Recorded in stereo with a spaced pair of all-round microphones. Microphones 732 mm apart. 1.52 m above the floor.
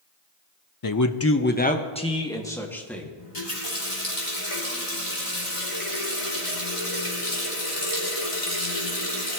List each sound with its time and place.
0.8 s a man speaking: 35° left (ahead or behind), 0.6 m; by 3.1 s centre (ahead or behind), 2.5 m
3.2 s a running tap: 50° left (ahead or behind), 3 m